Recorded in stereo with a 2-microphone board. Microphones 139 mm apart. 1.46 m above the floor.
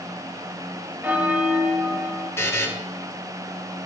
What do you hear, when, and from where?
1.0 s a bell: 15° right (ahead or behind), 0.9 m
2.4 s a buzzer: 20° left (ahead or behind), 1.3 m